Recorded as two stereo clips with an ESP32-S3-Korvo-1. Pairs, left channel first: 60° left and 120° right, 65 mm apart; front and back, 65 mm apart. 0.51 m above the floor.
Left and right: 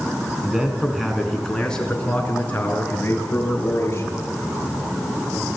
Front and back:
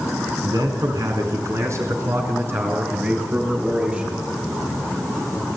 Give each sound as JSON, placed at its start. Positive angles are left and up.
{"t": 0.4, "sound": "a man speaking", "azimuth_deg": 160, "distance_m": 4.5}